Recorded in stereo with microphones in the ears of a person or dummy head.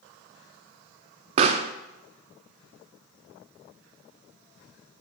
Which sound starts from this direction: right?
A pop, at 1.4 s.